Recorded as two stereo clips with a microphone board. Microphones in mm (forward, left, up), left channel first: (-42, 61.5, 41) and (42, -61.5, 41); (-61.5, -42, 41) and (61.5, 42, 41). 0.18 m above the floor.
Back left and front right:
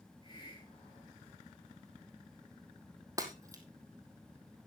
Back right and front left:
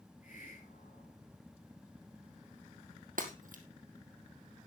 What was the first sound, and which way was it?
A hiss, straight behind.